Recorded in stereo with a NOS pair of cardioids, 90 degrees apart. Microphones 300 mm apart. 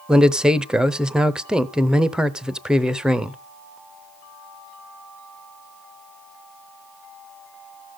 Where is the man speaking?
5° right, 0.6 m.